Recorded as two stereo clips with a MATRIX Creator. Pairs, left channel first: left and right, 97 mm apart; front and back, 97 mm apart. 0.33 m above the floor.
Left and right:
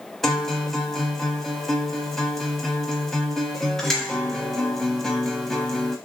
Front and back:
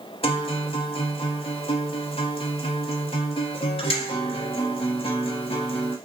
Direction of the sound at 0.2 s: 5° left.